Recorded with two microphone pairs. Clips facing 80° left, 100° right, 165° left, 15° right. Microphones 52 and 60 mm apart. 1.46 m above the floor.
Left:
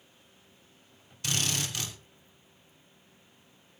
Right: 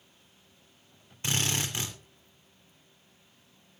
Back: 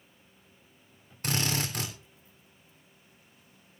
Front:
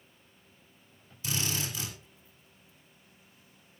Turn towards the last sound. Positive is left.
turn(degrees=-160)